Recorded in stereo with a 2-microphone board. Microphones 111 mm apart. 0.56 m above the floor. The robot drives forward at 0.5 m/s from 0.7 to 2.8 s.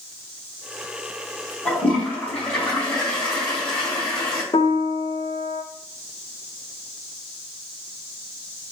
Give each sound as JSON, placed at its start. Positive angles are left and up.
{"t": 1.6, "sound": "a toilet flushing", "side_deg": 15, "distance_m": 1.8}
{"t": 4.5, "sound": "a piano", "side_deg": 45, "distance_m": 0.6}